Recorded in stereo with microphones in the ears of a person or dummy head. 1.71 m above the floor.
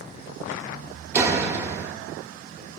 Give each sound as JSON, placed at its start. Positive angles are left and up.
{"t": 1.1, "sound": "a door slam", "side_deg": -20, "distance_m": 1.0}